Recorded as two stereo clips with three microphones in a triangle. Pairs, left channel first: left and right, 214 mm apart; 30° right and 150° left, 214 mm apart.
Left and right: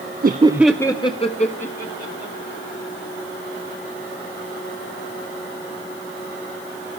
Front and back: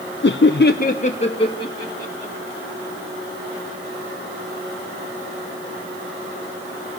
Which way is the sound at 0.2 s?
50° right.